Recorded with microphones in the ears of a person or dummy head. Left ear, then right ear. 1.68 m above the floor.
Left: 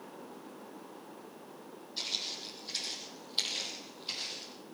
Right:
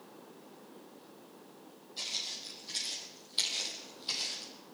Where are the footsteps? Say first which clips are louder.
Left 1 dB; 15° left (ahead or behind), 4.5 m; by 4.5 s 15° right (ahead or behind), 4 m.